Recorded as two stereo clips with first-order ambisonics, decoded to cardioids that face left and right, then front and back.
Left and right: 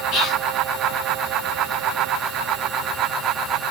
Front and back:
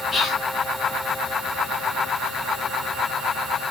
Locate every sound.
0.1 s whispering: 60° left, 0.9 m